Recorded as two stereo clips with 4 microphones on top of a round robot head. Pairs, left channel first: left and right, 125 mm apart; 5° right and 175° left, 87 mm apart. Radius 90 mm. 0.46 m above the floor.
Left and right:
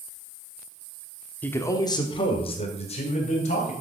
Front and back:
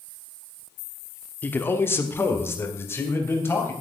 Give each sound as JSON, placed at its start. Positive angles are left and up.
{"t": 1.4, "sound": "a man speaking", "azimuth_deg": 30, "distance_m": 1.0}